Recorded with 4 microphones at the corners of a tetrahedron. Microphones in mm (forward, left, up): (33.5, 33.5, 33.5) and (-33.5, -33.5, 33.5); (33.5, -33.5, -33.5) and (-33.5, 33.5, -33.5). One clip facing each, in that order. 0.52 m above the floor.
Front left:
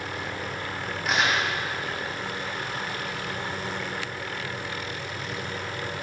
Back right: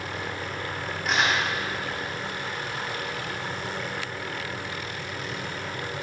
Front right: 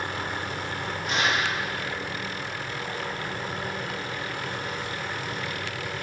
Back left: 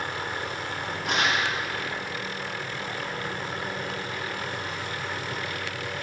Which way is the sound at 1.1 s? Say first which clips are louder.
Even, even; 135° left.